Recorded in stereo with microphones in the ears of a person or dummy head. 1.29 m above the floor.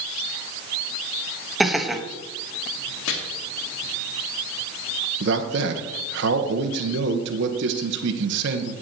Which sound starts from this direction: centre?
Laughter, at 1.6 s.